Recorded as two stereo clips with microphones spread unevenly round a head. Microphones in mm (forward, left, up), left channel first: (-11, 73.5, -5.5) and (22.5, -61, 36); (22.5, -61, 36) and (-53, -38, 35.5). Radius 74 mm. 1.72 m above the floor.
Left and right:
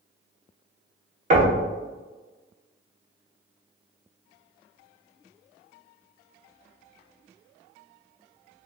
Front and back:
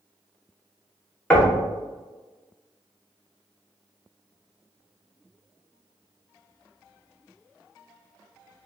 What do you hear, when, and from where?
1.3 s knocking: 85° right, 0.9 m